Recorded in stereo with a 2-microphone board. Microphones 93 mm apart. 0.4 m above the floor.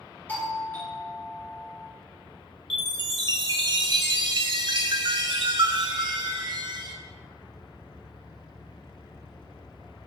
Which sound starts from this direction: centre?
A doorbell, at 0.3 s.